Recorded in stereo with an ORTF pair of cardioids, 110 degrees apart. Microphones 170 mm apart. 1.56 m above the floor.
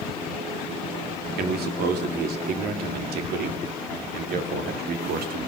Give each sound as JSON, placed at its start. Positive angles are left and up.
{"t": 1.4, "sound": "a man speaking", "azimuth_deg": -70, "distance_m": 3.0}